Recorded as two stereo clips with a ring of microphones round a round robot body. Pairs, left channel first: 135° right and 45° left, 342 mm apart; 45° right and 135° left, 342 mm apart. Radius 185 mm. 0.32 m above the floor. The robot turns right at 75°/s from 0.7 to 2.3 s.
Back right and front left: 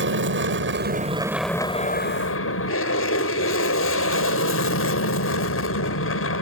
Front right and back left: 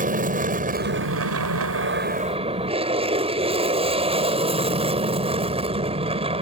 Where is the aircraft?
80° left; by 6.4 s 160° right.